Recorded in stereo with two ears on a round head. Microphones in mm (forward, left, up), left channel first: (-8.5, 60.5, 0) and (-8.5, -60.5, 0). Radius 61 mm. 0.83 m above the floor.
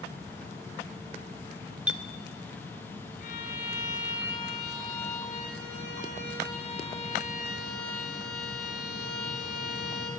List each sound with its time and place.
1.9 s a clink: 10° right (ahead or behind), 0.8 m
3.2 s a violin: 55° left (ahead or behind), 4 m